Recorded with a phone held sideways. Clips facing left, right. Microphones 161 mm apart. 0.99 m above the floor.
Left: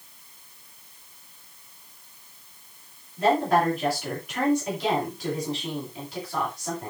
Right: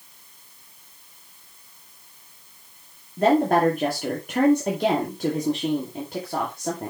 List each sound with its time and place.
3.2 s a woman speaking: 55° right (ahead or behind), 2.5 m